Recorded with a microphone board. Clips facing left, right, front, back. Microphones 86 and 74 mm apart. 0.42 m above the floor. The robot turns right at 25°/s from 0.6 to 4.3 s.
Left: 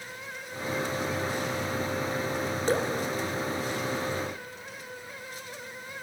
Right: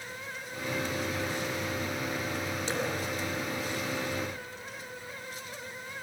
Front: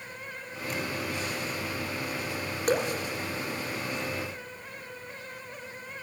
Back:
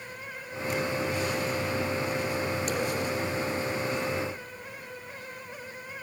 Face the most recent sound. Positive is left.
turn(degrees=80)